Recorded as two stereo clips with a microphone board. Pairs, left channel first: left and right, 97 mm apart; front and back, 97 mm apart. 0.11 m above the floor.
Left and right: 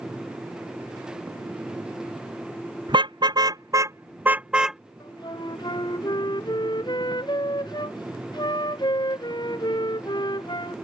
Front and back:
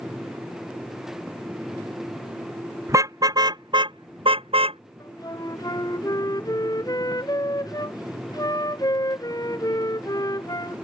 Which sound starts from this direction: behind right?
A car horn, at 2.9 s.